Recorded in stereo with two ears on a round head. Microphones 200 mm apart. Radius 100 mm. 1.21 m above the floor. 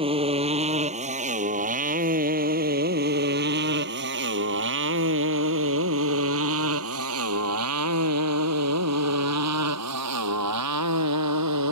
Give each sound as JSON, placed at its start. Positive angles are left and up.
{"t": 0.0, "sound": "a motorcycle", "side_deg": -25}